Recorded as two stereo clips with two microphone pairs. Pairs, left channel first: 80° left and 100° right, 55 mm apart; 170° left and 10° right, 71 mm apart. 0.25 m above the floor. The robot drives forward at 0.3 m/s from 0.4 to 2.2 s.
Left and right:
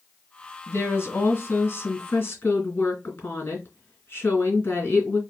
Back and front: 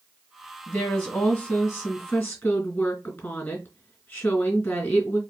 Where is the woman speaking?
110° left, 2.0 m; by 5.2 s 125° left, 2 m.